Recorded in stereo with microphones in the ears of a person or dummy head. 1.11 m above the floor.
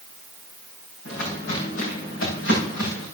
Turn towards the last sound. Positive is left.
turn(degrees=75)  # may be behind; listen again after turning